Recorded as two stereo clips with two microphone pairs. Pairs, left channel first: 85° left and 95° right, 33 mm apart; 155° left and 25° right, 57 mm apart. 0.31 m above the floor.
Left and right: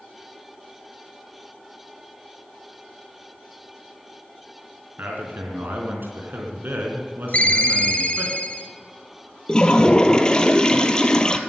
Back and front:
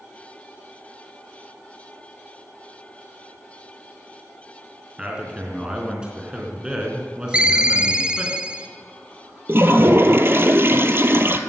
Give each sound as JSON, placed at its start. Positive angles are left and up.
{"t": 5.0, "sound": "a man speaking", "azimuth_deg": -100, "distance_m": 3.5}
{"t": 7.3, "sound": "a ringtone", "azimuth_deg": 45, "distance_m": 1.1}
{"t": 9.5, "sound": "a toilet flushing", "azimuth_deg": 20, "distance_m": 1.1}